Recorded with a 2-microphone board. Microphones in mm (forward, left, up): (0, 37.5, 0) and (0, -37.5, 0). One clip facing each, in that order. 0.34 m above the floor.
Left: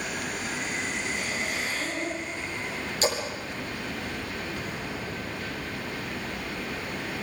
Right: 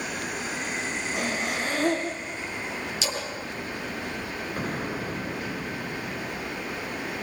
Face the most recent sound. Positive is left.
turn(degrees=-45)  # may be behind; listen again after turning